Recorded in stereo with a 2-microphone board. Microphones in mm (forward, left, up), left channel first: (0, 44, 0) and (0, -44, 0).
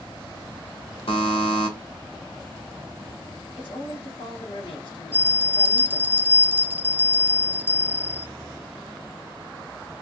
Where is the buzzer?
85° left, 1.8 m.